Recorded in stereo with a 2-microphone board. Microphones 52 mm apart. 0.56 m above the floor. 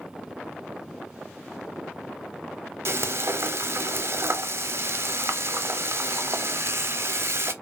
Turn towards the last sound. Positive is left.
turn(degrees=-60)  # may be behind; listen again after turning